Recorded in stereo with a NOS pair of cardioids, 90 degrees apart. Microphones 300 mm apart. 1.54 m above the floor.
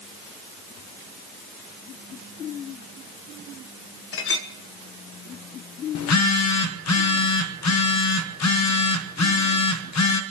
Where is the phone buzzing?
65° left, 1.3 m.